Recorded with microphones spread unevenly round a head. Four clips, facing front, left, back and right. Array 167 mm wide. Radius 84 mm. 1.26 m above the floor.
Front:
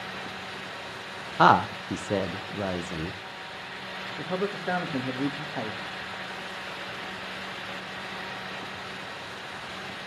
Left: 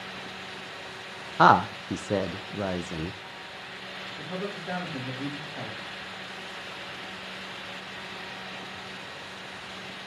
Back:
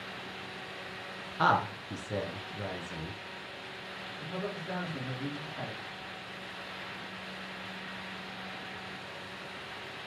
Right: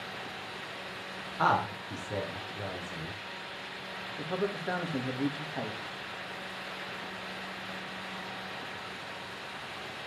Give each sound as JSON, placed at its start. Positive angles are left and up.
{"t": 1.4, "sound": "a woman speaking", "azimuth_deg": 50, "distance_m": 0.7}
{"t": 4.2, "sound": "a man speaking", "azimuth_deg": -20, "distance_m": 2.5}